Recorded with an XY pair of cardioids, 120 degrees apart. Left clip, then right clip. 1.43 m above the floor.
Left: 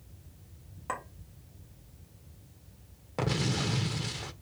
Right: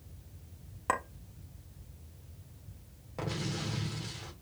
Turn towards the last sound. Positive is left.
turn(degrees=45)